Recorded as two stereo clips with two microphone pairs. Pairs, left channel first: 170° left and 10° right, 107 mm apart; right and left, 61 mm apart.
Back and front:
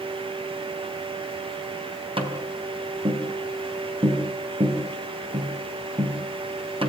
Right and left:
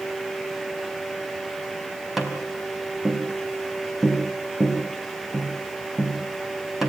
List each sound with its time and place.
2.2 s tapping: 5° left, 4 m